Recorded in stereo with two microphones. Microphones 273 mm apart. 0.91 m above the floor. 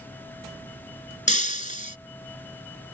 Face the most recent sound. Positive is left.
turn(degrees=30)  # may be behind; listen again after turning